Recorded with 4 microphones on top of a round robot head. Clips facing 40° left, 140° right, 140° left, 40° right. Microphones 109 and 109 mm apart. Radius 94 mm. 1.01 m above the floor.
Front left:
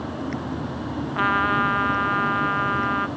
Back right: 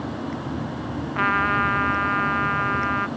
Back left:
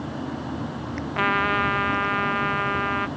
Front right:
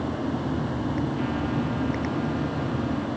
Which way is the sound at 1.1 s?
120° left.